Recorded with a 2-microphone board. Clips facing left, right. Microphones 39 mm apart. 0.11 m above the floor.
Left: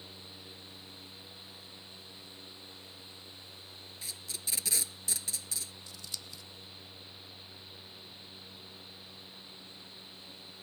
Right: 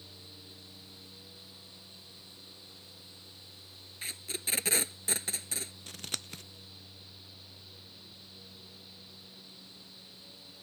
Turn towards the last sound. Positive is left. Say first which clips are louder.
# right 4 dB
turn(degrees=-60)  # may be behind; listen again after turning